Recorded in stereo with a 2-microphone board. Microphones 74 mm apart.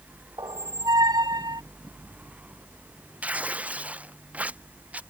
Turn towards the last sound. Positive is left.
turn(degrees=-20)  # may be behind; listen again after turning